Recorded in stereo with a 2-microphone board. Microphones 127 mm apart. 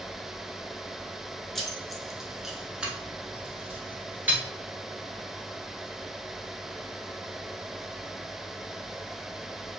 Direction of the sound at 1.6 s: 5° left (ahead or behind).